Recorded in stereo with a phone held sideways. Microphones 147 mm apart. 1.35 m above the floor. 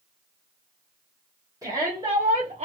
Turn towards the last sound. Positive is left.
turn(degrees=-45)  # may be behind; listen again after turning